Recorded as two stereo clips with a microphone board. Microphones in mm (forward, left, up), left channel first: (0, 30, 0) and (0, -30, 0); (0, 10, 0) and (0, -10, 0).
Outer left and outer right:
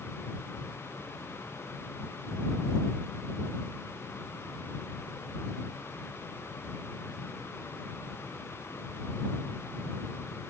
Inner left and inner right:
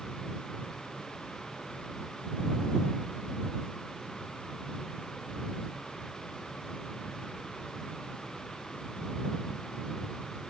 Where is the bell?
I don't hear a bell.